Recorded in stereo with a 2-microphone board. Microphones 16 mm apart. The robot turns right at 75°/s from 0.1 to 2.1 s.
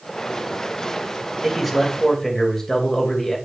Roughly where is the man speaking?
Ahead right.